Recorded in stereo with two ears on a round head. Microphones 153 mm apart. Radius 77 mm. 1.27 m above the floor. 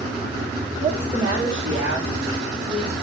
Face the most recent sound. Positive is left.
turn(degrees=-30)  # may be behind; listen again after turning